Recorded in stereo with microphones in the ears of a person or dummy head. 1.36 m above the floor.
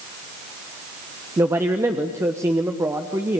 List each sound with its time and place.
1.4 s a man speaking: 15° right (ahead or behind), 1.2 m